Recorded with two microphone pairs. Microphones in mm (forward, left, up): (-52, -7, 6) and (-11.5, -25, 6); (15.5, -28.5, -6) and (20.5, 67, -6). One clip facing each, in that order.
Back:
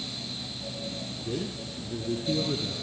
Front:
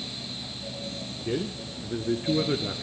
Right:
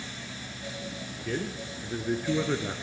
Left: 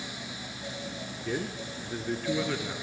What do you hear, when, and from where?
1.2 s a man speaking: 5° left, 3 m; by 2.8 s 30° right, 2.5 m